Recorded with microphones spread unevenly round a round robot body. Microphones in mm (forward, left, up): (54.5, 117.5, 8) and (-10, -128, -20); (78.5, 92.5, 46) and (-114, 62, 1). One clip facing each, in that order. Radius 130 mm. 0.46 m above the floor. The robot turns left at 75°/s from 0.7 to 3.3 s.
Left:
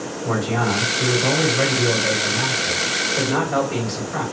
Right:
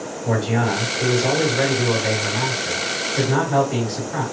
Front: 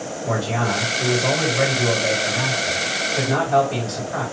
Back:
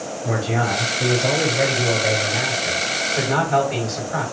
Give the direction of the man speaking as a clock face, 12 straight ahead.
12 o'clock.